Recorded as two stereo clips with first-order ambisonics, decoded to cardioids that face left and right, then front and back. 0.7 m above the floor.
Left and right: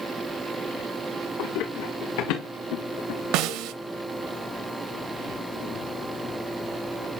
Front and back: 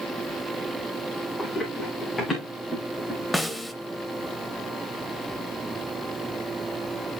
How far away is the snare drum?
About 0.6 m.